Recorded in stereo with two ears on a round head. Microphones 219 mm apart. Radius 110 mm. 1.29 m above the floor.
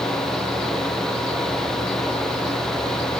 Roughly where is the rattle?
I don't hear a rattle.